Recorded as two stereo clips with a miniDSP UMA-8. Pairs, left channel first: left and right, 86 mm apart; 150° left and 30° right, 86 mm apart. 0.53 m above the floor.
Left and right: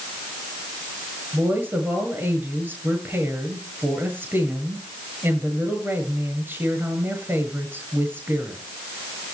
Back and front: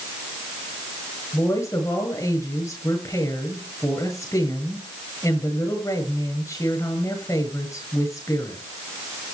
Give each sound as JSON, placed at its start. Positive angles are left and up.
{"t": 1.3, "sound": "a woman speaking", "azimuth_deg": -155, "distance_m": 8.5}